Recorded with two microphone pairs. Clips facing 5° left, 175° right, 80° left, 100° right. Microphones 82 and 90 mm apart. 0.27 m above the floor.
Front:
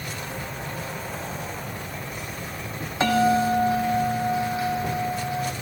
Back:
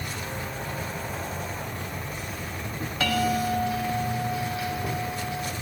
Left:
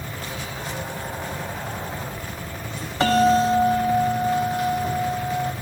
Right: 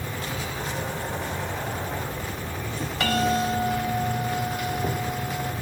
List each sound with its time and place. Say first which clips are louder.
0.0 s an insect: even, right 1 dB; 90° right, 2.5 m
3.0 s a bell: front 6 dB, left 7 dB; 45° left, 1.2 m